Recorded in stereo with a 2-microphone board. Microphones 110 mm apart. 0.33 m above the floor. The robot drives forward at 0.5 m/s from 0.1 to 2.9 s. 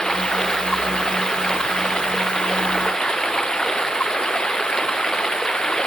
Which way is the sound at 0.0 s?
5° left (ahead or behind).